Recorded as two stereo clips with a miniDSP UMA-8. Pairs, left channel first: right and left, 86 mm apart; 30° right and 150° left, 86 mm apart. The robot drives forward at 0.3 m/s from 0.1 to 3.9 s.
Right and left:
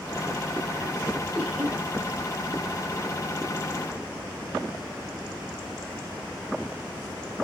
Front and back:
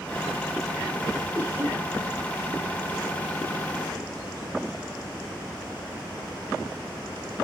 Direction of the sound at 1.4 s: 155° left.